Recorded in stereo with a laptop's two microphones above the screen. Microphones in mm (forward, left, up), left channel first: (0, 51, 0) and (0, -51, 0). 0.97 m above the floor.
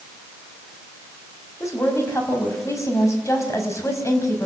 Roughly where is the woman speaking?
Left.